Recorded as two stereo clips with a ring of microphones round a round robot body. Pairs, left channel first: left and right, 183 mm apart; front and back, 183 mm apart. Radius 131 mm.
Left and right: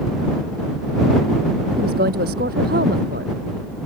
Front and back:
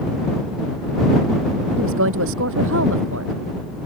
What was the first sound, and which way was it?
A woman speaking, 145° right.